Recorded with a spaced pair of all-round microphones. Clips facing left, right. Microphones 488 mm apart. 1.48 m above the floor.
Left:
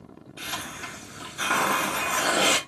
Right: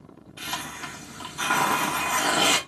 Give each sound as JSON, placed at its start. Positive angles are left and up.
{"t": 0.4, "sound": "a hiss", "side_deg": -20, "distance_m": 0.8}